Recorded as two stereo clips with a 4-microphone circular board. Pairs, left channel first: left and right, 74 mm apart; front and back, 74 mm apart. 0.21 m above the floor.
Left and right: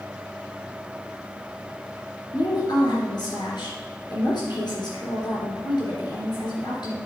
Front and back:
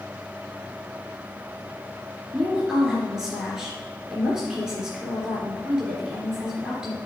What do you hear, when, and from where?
2.3 s a woman speaking: 100° left, 3.5 m